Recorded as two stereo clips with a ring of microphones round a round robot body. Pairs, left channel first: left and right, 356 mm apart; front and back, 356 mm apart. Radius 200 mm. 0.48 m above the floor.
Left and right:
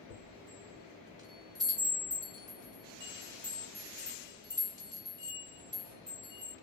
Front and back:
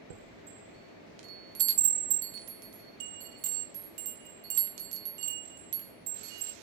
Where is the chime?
170° right, 0.5 m.